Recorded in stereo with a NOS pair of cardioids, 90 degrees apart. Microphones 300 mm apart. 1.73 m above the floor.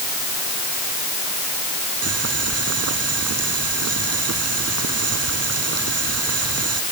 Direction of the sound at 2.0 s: 55° right.